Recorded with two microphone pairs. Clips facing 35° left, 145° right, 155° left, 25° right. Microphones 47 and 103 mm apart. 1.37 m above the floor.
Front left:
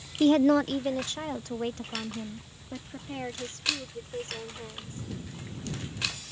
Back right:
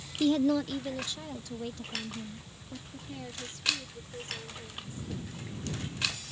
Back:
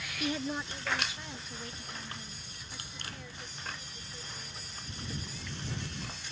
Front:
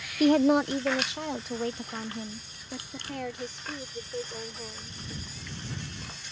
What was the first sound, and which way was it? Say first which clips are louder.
A woman speaking: front left 5 dB, front 14 dB; straight ahead.